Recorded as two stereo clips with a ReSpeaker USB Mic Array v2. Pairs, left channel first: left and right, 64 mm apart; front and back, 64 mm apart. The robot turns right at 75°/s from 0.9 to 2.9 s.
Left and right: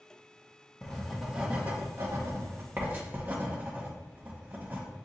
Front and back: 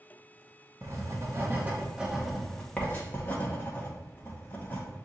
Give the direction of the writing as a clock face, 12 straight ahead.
6 o'clock.